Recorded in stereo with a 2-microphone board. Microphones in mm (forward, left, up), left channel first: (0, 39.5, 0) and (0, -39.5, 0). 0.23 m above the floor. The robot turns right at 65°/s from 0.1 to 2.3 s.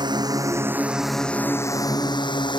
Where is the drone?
65° right (ahead or behind); by 2.6 s 80° left.